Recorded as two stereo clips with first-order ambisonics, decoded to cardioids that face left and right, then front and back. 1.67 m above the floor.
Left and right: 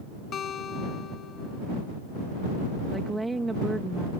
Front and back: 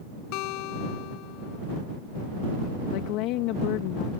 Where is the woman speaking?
10° right.